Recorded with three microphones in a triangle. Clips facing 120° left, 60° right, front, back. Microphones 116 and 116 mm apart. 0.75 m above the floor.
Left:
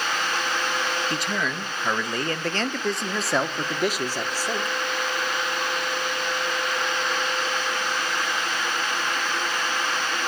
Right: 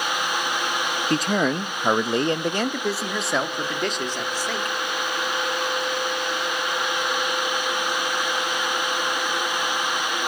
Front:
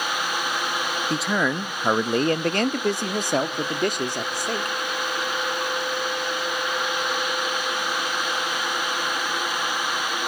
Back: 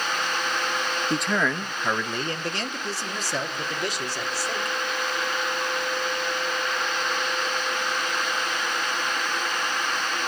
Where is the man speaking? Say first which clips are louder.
Right 6 dB, front 1 dB; 90° right, 0.6 m; by 4.8 s 40° left, 1.5 m.